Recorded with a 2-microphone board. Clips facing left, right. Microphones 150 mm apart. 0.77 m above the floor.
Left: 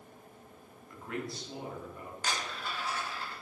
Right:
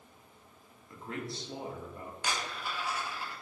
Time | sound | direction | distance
0.9 | a man speaking | 25° right (ahead or behind) | 0.7 m
2.2 | a dropped coin | 10° right (ahead or behind) | 0.7 m